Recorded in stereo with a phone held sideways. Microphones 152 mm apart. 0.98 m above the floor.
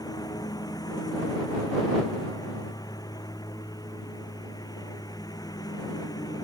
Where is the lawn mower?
25° left (ahead or behind).